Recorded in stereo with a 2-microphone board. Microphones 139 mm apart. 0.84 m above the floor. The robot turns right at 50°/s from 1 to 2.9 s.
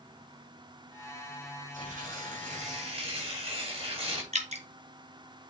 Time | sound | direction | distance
1.7 | tearing paper | 105° right | 4 m
4.3 | dripping | 60° right (ahead or behind) | 1.7 m